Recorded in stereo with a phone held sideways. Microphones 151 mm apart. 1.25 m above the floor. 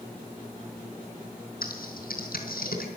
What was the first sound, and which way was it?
Typing on a keyboard, 75° left (ahead or behind).